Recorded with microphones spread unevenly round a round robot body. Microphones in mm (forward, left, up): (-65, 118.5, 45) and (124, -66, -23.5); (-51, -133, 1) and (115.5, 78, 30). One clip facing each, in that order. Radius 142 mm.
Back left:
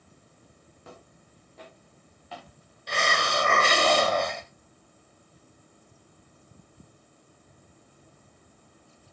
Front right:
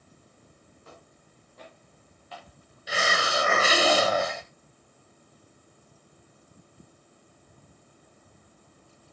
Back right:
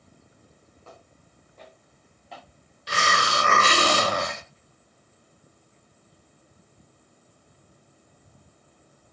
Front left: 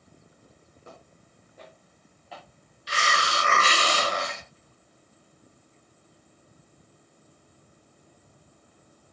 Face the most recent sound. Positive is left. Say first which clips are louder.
# even, back right 3 dB
turn(degrees=-145)